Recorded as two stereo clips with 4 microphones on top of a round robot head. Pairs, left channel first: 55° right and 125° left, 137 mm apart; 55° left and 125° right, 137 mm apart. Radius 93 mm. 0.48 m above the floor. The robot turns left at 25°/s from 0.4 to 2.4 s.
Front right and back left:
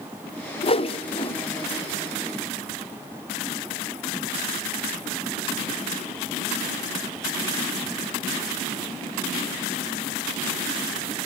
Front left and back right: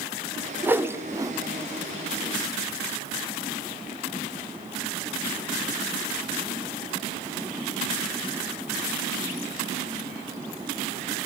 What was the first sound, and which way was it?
A whoosh, 55° right.